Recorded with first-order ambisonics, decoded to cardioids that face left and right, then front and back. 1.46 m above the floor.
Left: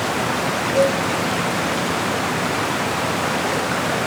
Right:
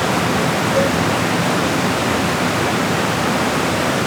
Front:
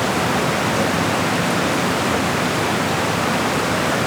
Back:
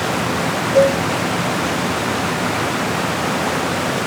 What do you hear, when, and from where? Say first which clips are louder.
0.8 s a cowbell: left 2 dB, back 6 dB; 170° right, 6.5 m